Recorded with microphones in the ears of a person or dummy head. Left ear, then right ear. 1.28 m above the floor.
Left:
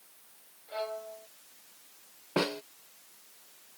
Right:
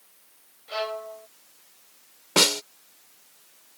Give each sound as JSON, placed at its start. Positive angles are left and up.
{"t": 0.7, "sound": "a violin", "side_deg": -70}
{"t": 2.4, "sound": "a snare drum", "side_deg": -80}